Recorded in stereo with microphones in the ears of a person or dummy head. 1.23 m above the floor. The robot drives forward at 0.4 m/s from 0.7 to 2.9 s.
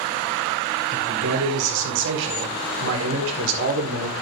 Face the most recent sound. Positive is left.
turn(degrees=-80)